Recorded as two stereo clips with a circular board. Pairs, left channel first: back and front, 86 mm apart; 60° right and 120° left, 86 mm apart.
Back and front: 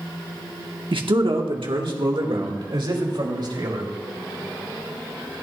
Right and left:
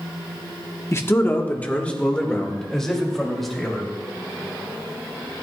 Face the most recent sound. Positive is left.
turn(degrees=30)